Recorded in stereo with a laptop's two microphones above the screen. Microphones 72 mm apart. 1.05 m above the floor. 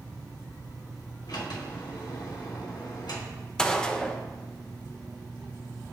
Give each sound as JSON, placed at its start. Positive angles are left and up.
{"t": 1.3, "sound": "a sliding door", "side_deg": 75, "distance_m": 3.0}
{"t": 3.6, "sound": "a gunshot", "side_deg": 10, "distance_m": 0.6}